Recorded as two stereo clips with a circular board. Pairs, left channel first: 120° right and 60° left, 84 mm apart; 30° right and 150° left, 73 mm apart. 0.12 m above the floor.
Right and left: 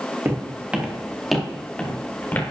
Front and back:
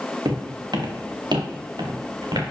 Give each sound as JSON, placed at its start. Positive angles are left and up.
{"t": 0.2, "sound": "footsteps", "azimuth_deg": 125, "distance_m": 2.5}